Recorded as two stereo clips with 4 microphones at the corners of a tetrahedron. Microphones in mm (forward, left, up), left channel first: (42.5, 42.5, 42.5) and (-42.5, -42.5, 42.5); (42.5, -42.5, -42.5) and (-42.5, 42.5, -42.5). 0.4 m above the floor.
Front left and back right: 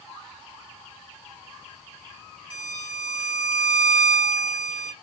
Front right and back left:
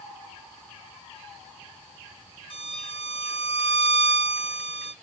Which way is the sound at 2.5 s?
10° right.